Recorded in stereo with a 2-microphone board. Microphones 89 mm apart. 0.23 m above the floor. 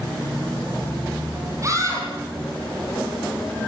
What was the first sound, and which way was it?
A scream, 35° right (ahead or behind).